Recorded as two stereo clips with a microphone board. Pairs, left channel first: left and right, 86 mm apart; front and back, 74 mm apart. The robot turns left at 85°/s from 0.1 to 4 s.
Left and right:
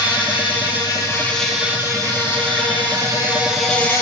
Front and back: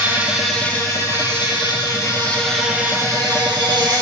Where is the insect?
120° left, 2.5 m; by 4.0 s 145° left, 2.5 m.